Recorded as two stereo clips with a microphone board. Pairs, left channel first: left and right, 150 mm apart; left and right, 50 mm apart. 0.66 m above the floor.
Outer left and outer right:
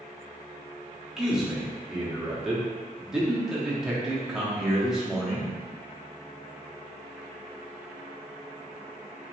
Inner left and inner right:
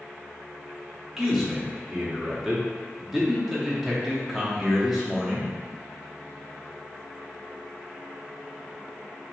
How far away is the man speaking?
About 1.1 m.